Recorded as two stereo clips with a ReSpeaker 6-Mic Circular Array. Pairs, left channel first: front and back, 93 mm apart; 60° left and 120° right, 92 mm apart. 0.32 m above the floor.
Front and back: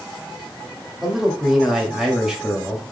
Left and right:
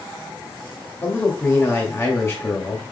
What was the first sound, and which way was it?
A man speaking, 95° left.